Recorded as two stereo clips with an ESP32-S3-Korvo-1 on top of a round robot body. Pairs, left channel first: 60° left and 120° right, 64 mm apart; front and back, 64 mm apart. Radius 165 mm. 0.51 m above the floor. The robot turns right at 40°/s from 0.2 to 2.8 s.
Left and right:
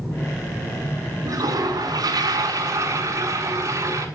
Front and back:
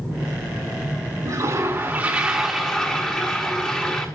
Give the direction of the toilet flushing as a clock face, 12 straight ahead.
5 o'clock.